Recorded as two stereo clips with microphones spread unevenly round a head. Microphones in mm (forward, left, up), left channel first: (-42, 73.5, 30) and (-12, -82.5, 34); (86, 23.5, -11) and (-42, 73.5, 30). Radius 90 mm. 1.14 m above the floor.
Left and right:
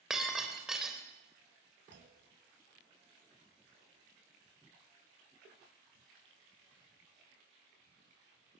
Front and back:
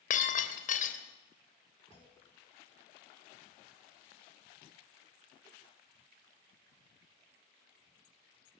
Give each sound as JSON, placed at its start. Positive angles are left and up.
{"t": 0.1, "sound": "breaking glass", "azimuth_deg": 10, "distance_m": 3.0}
{"t": 1.9, "sound": "a clunk", "azimuth_deg": -90, "distance_m": 4.0}